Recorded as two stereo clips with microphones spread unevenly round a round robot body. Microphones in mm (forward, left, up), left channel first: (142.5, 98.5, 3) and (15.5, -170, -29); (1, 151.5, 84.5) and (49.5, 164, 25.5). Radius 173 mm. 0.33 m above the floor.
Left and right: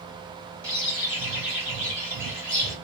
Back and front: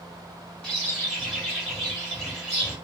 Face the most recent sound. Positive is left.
turn(degrees=-25)